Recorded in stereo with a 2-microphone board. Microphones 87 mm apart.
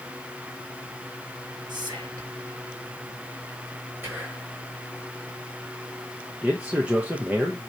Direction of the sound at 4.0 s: 25° right (ahead or behind).